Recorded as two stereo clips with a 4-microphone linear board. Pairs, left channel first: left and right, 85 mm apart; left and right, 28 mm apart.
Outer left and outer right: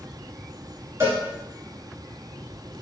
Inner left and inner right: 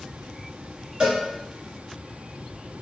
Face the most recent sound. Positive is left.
turn(degrees=-35)  # may be behind; listen again after turning